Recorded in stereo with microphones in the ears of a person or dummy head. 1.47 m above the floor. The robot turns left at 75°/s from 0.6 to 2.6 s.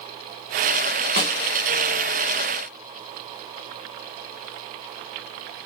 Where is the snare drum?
50° right (ahead or behind), 0.8 m; by 1.4 s 45° right (ahead or behind), 0.8 m.